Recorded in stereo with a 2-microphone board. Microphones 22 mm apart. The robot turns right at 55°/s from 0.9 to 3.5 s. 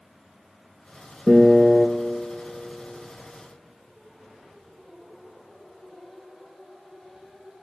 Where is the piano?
35° right, 1.0 m; by 1.9 s straight ahead, 1.0 m.